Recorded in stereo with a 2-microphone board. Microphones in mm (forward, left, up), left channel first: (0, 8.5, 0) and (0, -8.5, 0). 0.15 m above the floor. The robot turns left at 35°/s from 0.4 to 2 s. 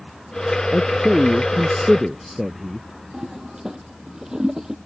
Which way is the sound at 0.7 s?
35° left.